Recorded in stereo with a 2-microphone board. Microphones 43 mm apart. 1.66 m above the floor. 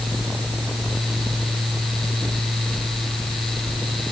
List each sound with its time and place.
Only background noise.